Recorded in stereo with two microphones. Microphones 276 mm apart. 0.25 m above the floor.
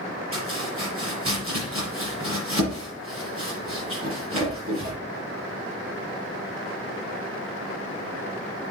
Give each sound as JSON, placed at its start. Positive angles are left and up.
{"t": 0.3, "sound": "chopping", "side_deg": -50, "distance_m": 6.0}